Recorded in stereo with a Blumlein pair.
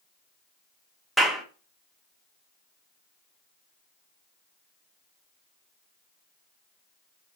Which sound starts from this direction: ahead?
A clap, at 1.2 s.